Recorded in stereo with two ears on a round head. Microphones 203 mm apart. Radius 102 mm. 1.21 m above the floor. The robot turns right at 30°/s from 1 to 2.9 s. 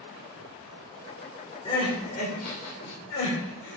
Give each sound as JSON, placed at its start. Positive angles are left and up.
{"t": 1.6, "sound": "crying", "side_deg": 20, "distance_m": 2.5}